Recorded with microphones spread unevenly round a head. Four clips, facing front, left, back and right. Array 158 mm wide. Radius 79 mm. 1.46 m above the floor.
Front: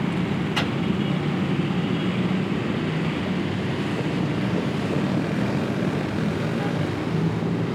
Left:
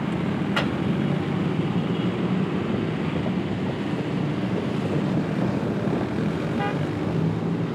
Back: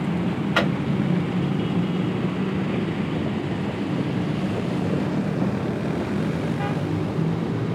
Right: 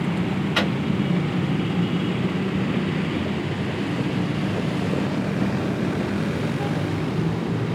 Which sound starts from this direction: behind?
A microwave, at 0.6 s.